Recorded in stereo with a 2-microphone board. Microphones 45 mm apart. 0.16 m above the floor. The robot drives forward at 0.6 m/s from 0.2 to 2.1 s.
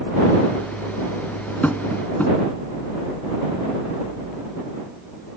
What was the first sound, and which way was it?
Tapping, 35° left (ahead or behind).